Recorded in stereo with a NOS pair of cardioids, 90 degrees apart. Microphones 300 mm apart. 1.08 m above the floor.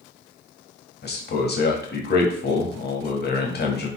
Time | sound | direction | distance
1.0 | a man speaking | 35° left | 1.3 m